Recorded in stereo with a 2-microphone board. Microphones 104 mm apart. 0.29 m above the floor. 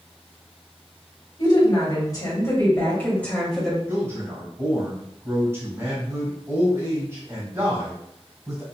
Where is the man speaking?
25° right (ahead or behind), 1.7 m.